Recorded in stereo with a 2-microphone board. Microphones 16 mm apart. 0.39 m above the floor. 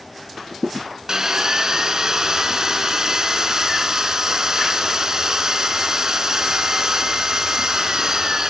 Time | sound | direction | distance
1.1 | sawing | 45° right (ahead or behind) | 1.5 m